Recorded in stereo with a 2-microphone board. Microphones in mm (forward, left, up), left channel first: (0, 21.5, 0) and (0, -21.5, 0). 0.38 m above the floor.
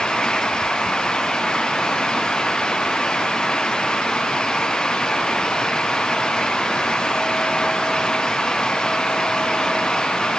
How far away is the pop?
I don't hear a pop.